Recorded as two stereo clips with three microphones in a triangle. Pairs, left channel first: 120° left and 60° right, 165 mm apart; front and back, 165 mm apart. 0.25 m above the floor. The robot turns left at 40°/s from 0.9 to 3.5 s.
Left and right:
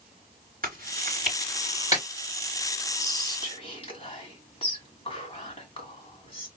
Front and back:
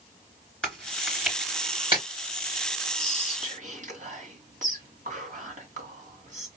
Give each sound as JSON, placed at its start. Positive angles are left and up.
{"t": 0.6, "sound": "chewing", "azimuth_deg": -80, "distance_m": 3.0}
{"t": 3.0, "sound": "whispering", "azimuth_deg": -175, "distance_m": 2.0}